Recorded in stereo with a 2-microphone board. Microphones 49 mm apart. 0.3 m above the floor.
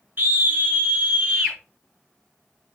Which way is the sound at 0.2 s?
45° right (ahead or behind).